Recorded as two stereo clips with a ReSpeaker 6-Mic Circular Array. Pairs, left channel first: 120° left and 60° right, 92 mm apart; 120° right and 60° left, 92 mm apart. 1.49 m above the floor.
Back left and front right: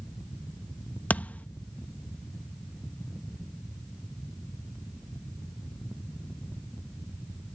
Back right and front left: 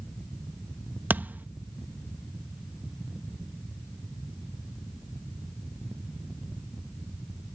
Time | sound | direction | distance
1.1 | a thud | 85° left | ?